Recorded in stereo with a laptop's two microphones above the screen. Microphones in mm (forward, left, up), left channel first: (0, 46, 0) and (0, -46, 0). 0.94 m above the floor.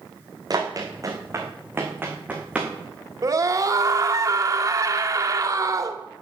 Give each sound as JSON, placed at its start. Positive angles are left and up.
{"t": 0.5, "sound": "running footsteps", "side_deg": -45, "distance_m": 3.5}
{"t": 3.2, "sound": "a scream", "side_deg": -40, "distance_m": 2.0}